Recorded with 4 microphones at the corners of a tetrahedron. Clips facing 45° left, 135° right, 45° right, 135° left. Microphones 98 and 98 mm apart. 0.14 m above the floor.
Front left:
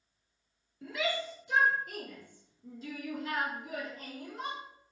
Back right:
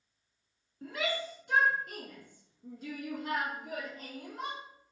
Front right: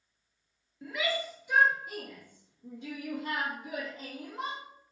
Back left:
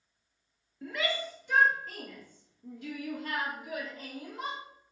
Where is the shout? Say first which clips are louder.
Front left 1 dB, front right 1 dB; 130° right, 1.8 m; by 4.6 s 105° right, 3.5 m.